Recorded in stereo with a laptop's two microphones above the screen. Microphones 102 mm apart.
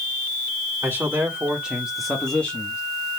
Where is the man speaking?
20° right (ahead or behind), 2 m; by 2.8 s 25° left (ahead or behind), 1.1 m.